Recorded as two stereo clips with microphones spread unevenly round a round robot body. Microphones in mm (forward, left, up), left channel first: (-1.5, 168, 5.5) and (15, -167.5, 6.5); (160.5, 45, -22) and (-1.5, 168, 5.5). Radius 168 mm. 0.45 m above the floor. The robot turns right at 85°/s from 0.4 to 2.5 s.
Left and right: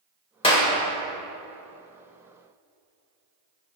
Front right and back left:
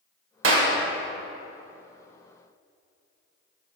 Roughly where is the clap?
Behind.